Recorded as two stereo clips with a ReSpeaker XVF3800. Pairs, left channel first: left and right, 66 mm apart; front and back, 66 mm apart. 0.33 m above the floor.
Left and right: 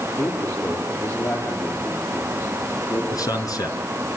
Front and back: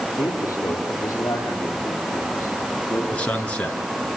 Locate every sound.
0.2 s a man speaking: 40° left, 9 m; by 3.0 s 45° left, 12 m
3.1 s a man speaking: 70° left, 4.5 m